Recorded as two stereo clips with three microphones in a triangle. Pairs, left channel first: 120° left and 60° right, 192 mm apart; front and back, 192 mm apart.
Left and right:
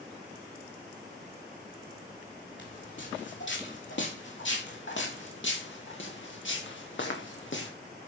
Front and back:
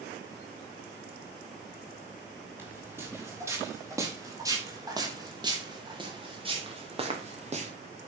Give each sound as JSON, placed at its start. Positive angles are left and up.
{"t": 2.6, "sound": "footsteps", "azimuth_deg": 100, "distance_m": 6.0}